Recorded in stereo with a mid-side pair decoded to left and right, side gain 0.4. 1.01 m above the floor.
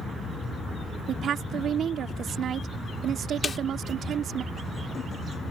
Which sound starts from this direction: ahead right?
A woman speaking, at 1.1 s.